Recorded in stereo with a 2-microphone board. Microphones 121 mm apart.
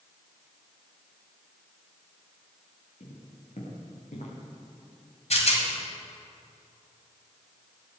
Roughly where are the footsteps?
Left.